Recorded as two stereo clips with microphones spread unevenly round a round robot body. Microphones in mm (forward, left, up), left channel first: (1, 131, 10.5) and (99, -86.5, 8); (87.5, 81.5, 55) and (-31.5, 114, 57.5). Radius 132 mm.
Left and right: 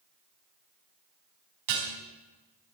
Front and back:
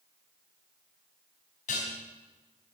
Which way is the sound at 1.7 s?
60° right.